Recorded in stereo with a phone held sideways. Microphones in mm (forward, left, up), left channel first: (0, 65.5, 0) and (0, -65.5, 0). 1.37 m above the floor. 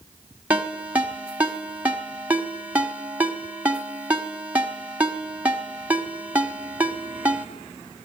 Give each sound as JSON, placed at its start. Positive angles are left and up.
{"t": 0.5, "sound": "a ringtone", "side_deg": -10, "distance_m": 1.4}